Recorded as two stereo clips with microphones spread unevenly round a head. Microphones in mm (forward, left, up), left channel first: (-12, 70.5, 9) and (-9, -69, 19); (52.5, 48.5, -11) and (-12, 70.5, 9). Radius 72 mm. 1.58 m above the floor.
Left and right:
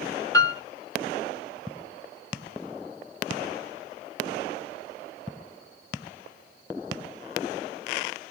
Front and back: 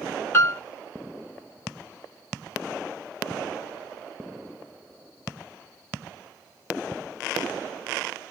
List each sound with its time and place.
0.3 s a piano: 30° left, 1.1 m